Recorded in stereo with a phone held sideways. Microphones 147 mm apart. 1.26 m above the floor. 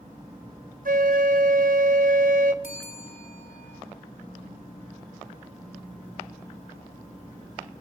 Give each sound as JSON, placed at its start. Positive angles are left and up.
{"t": 0.8, "sound": "a flute", "side_deg": -75, "distance_m": 1.5}
{"t": 2.6, "sound": "a bell", "side_deg": 65, "distance_m": 3.5}